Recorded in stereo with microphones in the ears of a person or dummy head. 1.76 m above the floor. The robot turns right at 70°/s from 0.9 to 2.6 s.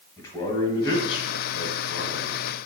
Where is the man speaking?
20° left, 1.9 m; by 2.4 s 120° left, 1.9 m.